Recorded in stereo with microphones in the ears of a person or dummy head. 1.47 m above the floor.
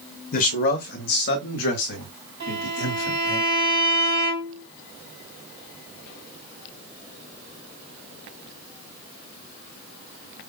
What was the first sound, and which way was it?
A man speaking, 45° left (ahead or behind).